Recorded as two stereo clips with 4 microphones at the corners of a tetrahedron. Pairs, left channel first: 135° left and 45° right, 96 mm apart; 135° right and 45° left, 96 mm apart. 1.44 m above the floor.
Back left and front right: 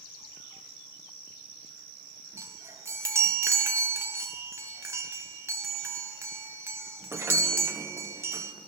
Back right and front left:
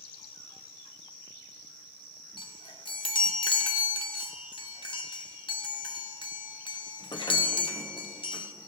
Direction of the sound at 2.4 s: 105° right.